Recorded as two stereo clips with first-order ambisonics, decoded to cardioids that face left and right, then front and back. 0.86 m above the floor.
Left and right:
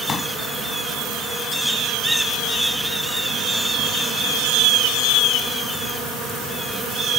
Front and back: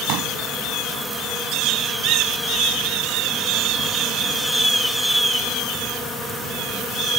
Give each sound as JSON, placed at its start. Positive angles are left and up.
{"t": 0.1, "sound": "a pop", "azimuth_deg": 155}